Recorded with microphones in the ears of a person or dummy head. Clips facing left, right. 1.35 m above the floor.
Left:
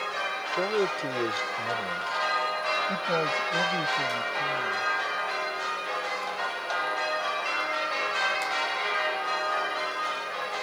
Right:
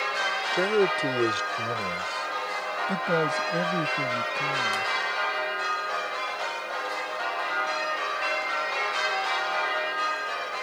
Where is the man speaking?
20° right (ahead or behind).